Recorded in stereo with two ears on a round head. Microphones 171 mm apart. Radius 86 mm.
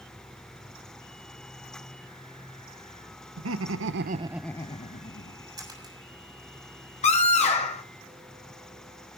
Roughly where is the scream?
Left.